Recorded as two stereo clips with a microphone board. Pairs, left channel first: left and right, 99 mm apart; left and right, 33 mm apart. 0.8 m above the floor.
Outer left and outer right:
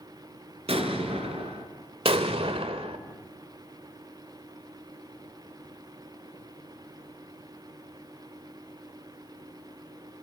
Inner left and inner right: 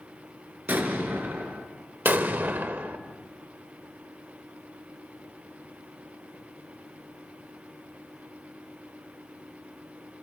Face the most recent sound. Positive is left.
turn(degrees=-75)  # may be behind; listen again after turning